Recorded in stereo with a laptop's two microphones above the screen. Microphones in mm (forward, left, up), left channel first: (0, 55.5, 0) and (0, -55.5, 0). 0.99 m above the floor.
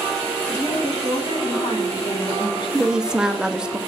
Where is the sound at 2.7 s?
5° right (ahead or behind), 0.7 m.